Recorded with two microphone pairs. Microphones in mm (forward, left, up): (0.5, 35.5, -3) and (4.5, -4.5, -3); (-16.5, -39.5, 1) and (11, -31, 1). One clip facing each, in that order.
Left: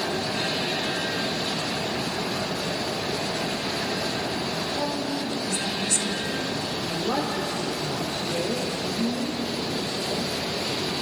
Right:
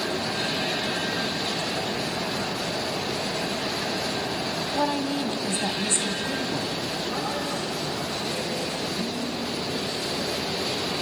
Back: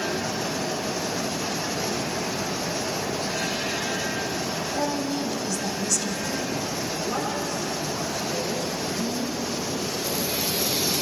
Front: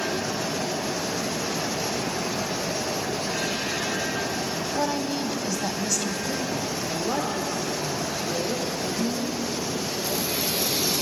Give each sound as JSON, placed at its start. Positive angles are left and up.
{"t": 4.7, "sound": "a woman speaking", "azimuth_deg": -55, "distance_m": 1.9}
{"t": 6.9, "sound": "a woman speaking", "azimuth_deg": 55, "distance_m": 7.0}